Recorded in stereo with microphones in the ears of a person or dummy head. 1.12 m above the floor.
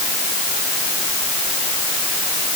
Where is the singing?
I don't hear singing.